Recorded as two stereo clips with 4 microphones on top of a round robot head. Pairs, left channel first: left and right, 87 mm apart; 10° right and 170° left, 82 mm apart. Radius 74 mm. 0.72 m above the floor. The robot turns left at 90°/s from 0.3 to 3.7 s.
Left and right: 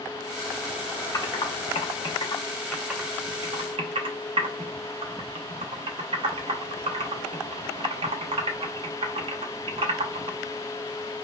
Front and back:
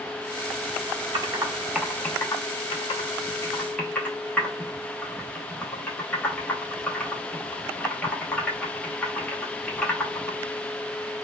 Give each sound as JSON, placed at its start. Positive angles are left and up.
{"t": 1.1, "sound": "typing on a keyboard", "azimuth_deg": 145, "distance_m": 0.7}